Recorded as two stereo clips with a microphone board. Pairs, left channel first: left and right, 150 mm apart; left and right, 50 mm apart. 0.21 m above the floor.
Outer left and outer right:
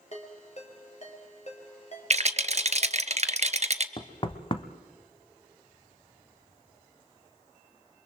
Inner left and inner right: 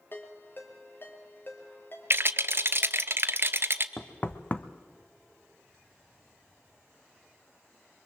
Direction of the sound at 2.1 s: 45° right (ahead or behind).